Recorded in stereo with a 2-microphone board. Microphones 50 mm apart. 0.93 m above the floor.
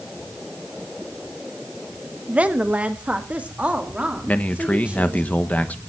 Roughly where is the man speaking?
Left.